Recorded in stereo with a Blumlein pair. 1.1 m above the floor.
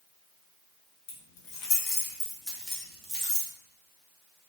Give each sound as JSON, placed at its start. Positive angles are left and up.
{"t": 1.1, "sound": "keys jangling", "azimuth_deg": 50, "distance_m": 0.8}